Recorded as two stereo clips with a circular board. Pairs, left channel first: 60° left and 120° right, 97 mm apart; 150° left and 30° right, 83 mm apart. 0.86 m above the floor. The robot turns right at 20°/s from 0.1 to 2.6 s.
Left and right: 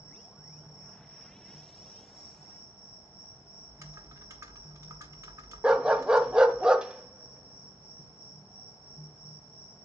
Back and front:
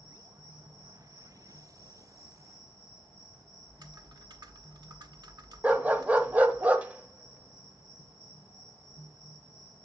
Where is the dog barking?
60° right, 0.6 m.